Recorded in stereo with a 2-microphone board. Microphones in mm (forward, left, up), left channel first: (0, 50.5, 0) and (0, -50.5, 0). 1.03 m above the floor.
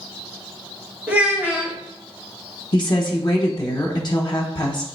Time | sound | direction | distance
1.1 | a child speaking | 15° right (ahead or behind) | 1.2 m
2.7 | a woman speaking | 45° left (ahead or behind) | 0.6 m